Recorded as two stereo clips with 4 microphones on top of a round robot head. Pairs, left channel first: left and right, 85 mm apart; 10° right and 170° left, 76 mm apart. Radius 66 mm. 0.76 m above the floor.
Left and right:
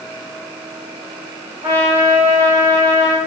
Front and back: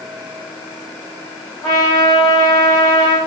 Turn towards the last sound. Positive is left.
turn(degrees=-55)